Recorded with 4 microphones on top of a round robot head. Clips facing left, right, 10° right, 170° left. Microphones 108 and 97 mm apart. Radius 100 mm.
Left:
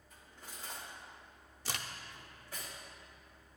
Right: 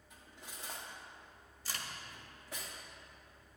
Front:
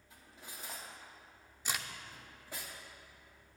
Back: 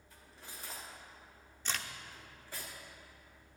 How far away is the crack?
About 0.7 m.